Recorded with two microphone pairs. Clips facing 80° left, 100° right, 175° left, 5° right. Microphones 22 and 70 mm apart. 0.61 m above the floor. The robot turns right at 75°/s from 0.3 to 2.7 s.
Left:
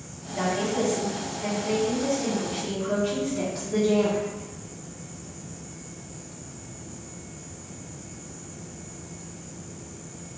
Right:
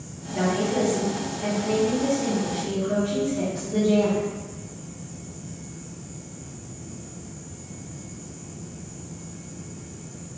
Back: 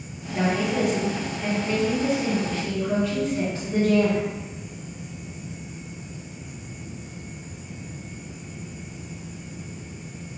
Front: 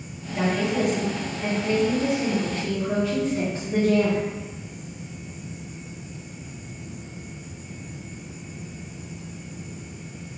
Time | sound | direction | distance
0.3 | a woman speaking | 145° right | 0.9 m